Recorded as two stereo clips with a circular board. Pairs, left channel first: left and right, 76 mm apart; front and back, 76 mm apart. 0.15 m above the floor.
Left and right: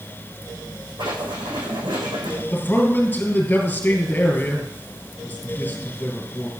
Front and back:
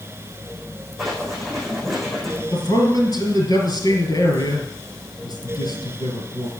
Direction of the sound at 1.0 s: 90° right.